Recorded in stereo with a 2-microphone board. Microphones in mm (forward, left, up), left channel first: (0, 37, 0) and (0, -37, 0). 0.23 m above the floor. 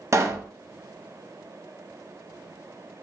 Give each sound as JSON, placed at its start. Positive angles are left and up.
{"t": 0.1, "sound": "a pop", "side_deg": -45, "distance_m": 0.6}